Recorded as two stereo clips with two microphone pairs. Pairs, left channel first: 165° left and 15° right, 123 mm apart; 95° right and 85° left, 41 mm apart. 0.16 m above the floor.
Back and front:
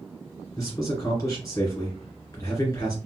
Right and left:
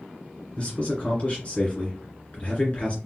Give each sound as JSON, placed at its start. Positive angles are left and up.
{"t": 0.6, "sound": "a man speaking", "azimuth_deg": -145, "distance_m": 2.0}